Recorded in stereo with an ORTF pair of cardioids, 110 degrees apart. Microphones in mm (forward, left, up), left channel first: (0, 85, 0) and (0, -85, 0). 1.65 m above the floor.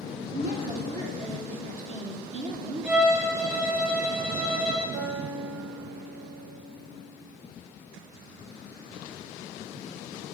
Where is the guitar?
45° right, 3 m.